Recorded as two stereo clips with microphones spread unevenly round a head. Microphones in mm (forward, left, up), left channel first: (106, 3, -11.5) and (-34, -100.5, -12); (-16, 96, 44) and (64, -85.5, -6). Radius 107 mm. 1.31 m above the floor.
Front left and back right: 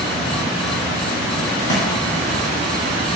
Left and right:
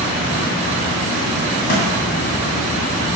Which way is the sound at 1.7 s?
105° left.